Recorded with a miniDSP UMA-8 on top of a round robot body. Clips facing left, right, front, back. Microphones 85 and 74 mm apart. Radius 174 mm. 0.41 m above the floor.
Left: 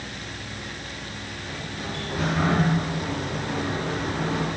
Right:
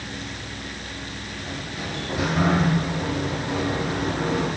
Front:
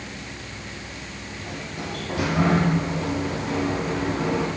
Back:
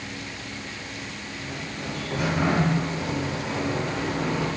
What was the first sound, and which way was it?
A sliding door, 15° right.